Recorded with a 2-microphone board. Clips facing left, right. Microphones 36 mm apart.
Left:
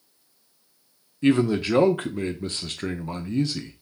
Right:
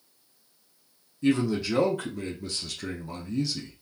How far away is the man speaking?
About 0.8 m.